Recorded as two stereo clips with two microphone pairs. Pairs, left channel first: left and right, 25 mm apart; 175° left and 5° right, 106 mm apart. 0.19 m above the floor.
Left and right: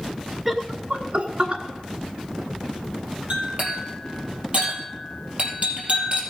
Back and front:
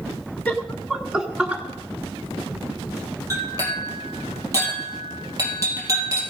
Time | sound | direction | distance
0.5 | laughter | 155° right | 1.0 m
3.3 | a clink | 60° right | 4.5 m